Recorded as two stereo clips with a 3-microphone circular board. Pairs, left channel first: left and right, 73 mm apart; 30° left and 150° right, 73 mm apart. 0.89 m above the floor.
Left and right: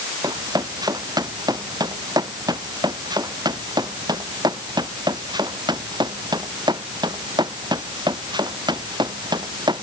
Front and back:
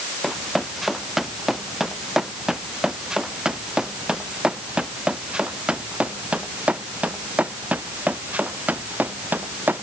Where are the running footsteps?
60° right; by 9.8 s 85° right.